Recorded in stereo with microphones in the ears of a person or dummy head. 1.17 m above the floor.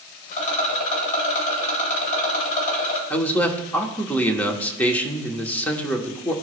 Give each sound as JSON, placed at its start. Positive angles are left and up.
{"t": 0.3, "sound": "a rattle", "side_deg": 55, "distance_m": 2.0}
{"t": 3.1, "sound": "a man speaking", "side_deg": 15, "distance_m": 0.9}